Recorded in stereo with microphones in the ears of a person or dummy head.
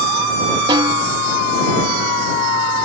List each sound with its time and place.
0.7 s a snare drum: 25° right (ahead or behind)